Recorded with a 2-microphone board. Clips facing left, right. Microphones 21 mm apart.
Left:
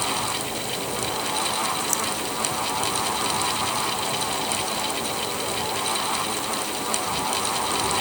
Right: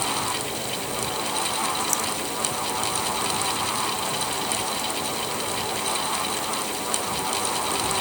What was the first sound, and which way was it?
Only background noise.